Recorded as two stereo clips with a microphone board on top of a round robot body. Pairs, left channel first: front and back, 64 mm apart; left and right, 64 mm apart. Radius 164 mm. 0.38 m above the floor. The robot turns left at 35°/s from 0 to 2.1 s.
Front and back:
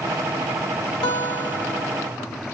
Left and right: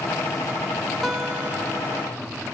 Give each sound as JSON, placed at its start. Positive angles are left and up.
{"t": 1.0, "sound": "a guitar", "azimuth_deg": -5, "distance_m": 0.9}